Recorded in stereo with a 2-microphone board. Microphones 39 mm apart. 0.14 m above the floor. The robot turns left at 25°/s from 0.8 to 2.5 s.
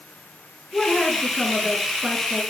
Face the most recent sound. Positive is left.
turn(degrees=-40)